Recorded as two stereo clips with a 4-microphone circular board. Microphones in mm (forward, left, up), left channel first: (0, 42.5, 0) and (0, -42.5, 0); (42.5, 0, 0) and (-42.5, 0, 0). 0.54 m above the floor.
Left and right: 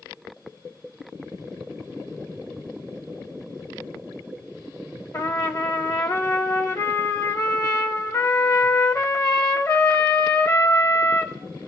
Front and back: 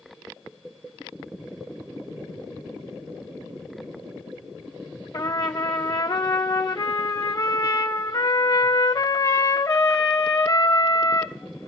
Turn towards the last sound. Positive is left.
turn(degrees=40)